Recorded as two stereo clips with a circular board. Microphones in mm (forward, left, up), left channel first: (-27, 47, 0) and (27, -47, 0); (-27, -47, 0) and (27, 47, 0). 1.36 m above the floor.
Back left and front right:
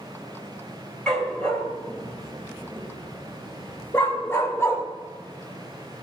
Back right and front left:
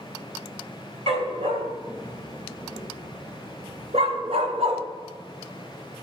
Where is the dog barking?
35° left, 3.5 m; by 4.8 s 60° left, 1.8 m.